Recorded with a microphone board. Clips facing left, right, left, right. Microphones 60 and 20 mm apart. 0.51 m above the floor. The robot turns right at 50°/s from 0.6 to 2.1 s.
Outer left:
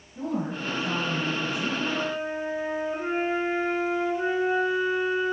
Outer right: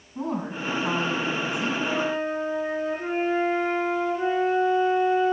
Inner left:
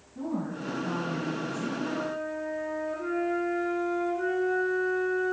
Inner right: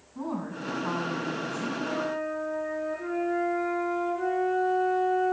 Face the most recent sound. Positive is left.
turn(degrees=10)  # may be behind; listen again after turning